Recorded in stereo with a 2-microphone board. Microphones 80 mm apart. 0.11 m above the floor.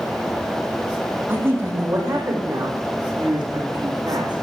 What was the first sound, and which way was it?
A woman speaking, 30° right (ahead or behind).